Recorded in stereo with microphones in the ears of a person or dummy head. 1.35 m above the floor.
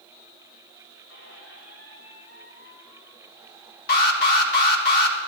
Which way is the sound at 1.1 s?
85° left.